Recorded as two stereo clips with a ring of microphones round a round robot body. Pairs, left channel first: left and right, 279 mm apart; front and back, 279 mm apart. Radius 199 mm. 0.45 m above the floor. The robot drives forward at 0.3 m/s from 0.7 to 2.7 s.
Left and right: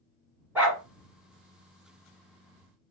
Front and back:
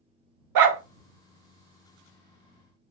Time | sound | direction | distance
0.6 | a dog barking | 175° right | 0.5 m